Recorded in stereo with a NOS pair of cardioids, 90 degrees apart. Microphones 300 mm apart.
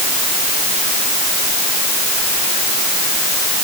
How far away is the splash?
No splash in this recording.